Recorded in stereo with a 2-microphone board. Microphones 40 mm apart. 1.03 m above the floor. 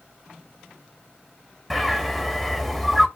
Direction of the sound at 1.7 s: 5° left (ahead or behind).